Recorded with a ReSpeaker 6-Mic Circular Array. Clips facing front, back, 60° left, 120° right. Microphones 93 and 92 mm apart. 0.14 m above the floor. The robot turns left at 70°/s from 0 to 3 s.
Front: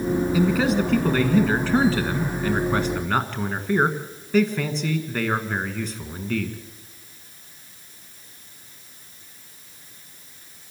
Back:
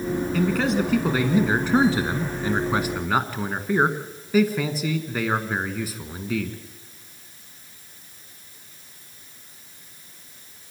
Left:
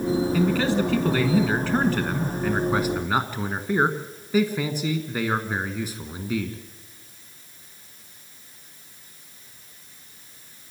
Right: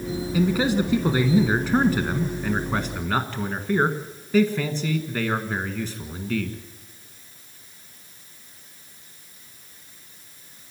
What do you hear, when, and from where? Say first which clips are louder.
0.3 s a man speaking: front 1 dB, even; 65° right, 1.1 m; by 6.6 s 110° left, 1.1 m